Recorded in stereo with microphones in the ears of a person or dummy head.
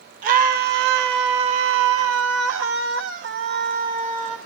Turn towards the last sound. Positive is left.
turn(degrees=-30)  # may be behind; listen again after turning